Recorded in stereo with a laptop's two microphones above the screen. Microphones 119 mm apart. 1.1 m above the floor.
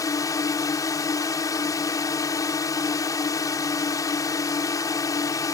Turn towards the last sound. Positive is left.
turn(degrees=30)  # may be behind; listen again after turning